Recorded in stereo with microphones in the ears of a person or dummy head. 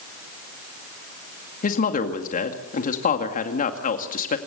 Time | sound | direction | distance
1.6 | a woman speaking | 55° left (ahead or behind) | 2 m